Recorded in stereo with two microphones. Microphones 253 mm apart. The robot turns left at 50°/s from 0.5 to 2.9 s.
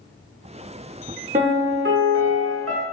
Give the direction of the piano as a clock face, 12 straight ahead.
1 o'clock.